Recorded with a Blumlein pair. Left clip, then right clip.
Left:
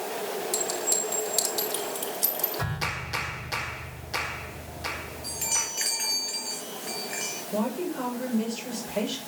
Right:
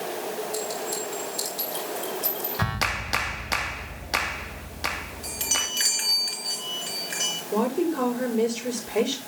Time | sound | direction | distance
0.5 | a clink | 50° left | 6.5 m
2.6 | a clap | 60° right | 2.5 m
5.2 | a chime | 40° right | 6 m
7.5 | a woman speaking | 40° right | 6.5 m